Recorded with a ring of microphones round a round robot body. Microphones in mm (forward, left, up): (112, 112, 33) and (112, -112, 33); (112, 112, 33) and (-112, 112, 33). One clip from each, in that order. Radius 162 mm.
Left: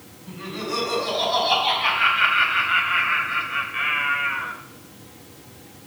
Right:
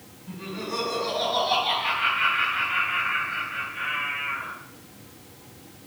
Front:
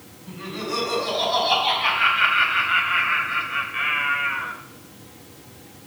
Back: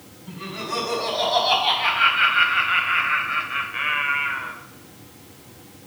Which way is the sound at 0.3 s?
120° left.